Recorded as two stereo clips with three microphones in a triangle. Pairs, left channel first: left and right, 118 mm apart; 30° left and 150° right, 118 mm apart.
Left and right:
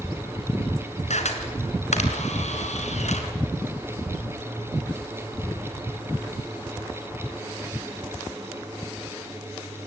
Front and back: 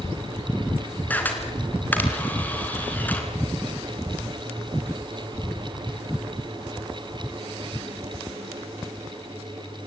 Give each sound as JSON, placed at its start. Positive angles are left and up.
{"t": 1.1, "sound": "a camera shutter", "azimuth_deg": 105, "distance_m": 3.0}